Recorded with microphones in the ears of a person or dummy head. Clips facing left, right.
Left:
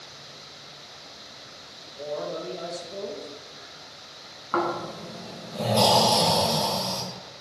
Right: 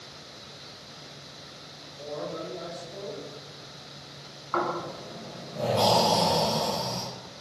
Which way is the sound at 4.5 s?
55° left (ahead or behind).